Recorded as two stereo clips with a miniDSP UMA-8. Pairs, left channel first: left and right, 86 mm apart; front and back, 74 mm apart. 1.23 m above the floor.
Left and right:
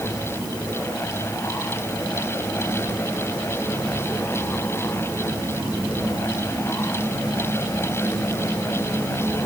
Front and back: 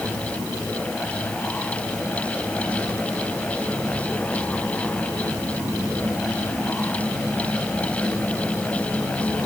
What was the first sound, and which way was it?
Only background noise.